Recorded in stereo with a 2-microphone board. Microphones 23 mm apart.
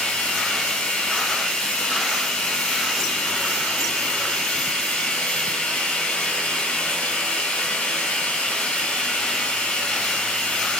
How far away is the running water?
About 1.6 m.